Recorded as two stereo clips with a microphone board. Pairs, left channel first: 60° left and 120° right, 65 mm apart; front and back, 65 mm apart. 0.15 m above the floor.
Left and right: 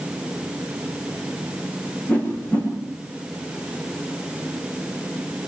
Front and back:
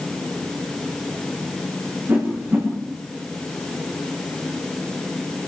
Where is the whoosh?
130° left, 9 m.